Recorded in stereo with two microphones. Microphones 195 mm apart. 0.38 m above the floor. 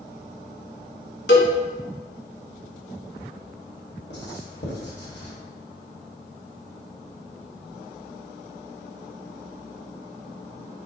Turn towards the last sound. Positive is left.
turn(degrees=80)